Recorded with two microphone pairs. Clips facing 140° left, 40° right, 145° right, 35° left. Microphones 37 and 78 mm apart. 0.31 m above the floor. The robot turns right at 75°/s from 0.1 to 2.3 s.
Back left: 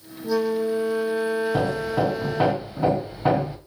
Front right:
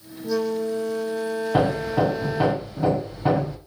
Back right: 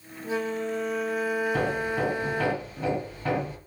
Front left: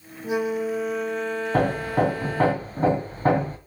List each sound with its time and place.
0.2 s a flute: 80° left, 0.8 m; by 2.5 s 125° right, 0.8 m
1.5 s hammering: 15° left, 1.9 m; by 3.6 s 70° left, 1.9 m